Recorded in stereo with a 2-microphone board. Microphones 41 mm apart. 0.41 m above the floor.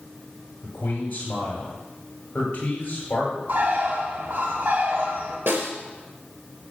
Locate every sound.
0.6 s a man speaking: 45° left (ahead or behind), 7 m
3.5 s a bird: 65° right (ahead or behind), 4 m
5.5 s a snare drum: 75° right (ahead or behind), 2.5 m